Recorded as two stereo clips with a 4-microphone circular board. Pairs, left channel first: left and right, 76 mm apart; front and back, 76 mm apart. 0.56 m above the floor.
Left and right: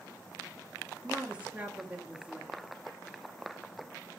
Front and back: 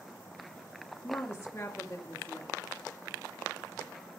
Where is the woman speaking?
30° right, 1.1 m.